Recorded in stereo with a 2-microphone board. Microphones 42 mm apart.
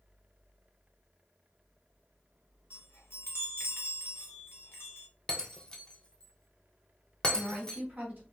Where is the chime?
70° left (ahead or behind), 1.0 m.